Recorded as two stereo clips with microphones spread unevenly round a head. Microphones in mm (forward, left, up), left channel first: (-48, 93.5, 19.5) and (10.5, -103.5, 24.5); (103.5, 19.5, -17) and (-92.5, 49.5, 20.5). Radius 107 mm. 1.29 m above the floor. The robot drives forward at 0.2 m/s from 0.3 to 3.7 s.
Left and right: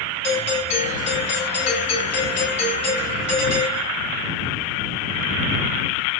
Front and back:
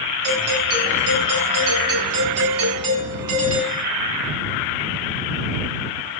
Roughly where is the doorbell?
Behind.